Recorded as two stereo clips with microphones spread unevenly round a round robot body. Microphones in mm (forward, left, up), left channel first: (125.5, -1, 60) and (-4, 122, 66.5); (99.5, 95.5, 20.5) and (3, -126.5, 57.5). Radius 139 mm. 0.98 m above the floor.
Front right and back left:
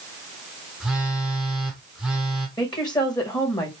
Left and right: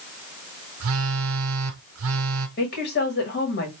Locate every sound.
0.8 s a phone buzzing: 135° right, 0.9 m
2.6 s a woman speaking: 25° left, 1.9 m